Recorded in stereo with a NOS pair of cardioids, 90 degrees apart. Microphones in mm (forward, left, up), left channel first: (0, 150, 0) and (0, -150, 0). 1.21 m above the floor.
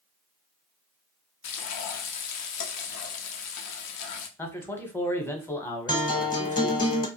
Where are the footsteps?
No footsteps in this recording.